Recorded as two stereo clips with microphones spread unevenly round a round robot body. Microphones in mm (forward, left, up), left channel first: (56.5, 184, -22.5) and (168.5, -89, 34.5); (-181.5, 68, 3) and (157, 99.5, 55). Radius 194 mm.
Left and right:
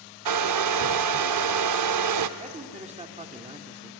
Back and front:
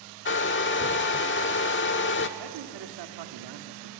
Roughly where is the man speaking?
Ahead.